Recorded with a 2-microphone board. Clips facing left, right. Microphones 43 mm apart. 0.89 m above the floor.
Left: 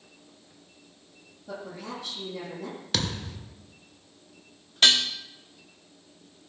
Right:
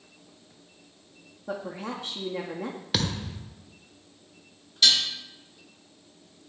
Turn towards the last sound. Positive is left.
turn(degrees=45)  # may be behind; listen again after turning